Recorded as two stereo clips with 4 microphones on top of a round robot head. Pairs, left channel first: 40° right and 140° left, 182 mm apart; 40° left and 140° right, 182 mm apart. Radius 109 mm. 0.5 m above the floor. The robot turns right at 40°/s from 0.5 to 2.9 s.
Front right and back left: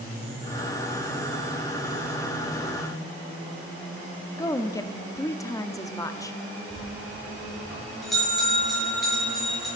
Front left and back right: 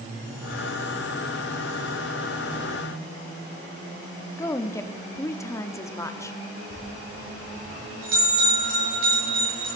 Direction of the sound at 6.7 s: 130° right.